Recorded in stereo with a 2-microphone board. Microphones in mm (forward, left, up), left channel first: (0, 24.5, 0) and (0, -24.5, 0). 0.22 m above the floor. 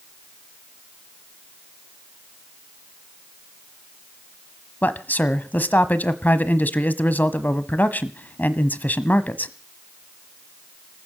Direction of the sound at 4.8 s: 35° left (ahead or behind).